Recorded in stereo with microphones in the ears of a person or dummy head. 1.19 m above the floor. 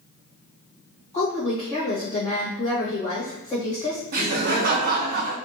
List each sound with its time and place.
1.1 s a woman speaking: 25° left (ahead or behind), 1.3 m
4.1 s laughter: 50° right (ahead or behind), 0.7 m